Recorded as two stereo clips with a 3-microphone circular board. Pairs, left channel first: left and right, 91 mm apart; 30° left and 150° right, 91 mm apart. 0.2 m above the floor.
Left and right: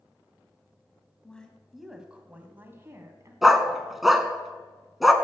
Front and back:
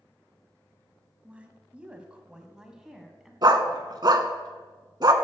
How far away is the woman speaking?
About 1.1 m.